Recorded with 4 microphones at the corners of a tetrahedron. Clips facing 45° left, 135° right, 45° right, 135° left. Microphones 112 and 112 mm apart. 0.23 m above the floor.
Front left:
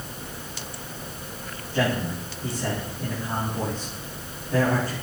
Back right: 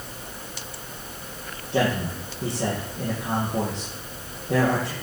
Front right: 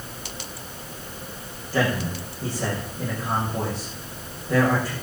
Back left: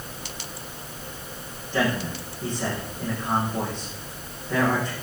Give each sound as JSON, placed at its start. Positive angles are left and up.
{"t": 1.7, "sound": "a man speaking", "azimuth_deg": -130, "distance_m": 8.0}